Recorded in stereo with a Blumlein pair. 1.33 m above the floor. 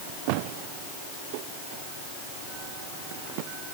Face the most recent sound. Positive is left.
No sound to turn to.